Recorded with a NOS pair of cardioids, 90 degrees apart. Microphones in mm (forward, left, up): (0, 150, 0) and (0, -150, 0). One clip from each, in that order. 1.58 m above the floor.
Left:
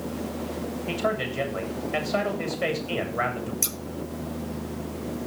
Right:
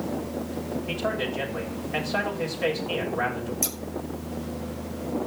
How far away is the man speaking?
About 8 m.